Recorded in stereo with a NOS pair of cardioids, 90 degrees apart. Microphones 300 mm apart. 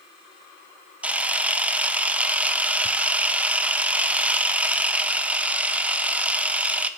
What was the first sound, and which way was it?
A camera shutter, 5° right.